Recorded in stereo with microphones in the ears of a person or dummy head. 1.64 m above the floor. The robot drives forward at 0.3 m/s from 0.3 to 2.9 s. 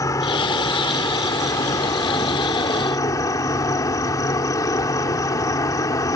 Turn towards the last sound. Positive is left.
turn(degrees=20)  # may be behind; listen again after turning